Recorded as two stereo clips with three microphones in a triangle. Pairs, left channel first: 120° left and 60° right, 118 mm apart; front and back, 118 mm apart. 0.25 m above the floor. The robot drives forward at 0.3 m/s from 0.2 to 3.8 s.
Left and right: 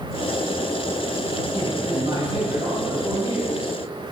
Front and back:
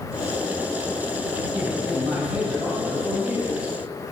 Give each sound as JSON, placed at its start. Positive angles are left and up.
{"t": 1.5, "sound": "a man speaking", "azimuth_deg": -85, "distance_m": 1.6}